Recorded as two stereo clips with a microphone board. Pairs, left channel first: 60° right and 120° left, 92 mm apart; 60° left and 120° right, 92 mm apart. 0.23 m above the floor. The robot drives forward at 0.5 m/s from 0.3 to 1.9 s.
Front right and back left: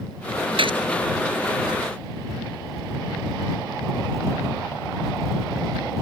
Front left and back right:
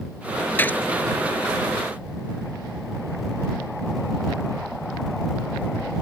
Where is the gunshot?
125° left; by 0.8 s 130° left.